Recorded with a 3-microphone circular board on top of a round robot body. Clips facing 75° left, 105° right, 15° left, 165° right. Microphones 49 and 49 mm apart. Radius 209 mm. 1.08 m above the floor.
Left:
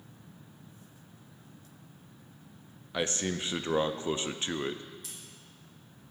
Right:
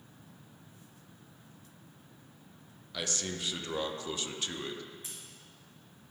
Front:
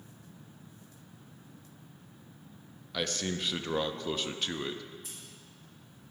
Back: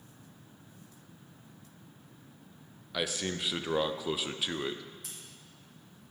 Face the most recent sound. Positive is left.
turn(degrees=-165)